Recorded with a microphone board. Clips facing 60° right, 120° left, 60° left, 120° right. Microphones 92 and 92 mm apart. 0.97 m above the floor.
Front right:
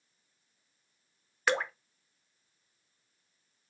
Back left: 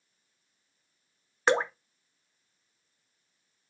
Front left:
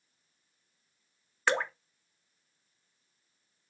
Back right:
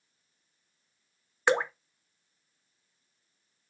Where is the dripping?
170° left, 0.6 m.